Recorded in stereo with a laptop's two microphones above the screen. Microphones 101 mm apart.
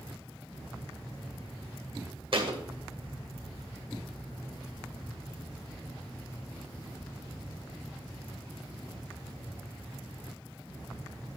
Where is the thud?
55° right (ahead or behind), 1.9 m.